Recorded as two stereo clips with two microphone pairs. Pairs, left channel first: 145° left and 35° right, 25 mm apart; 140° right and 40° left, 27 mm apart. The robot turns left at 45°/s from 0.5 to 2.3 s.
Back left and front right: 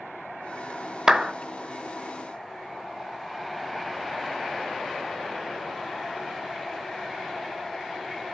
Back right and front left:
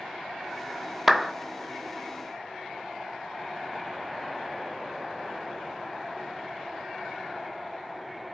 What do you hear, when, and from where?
1.1 s a clap: 30° right, 0.9 m; by 1.3 s 40° right, 0.9 m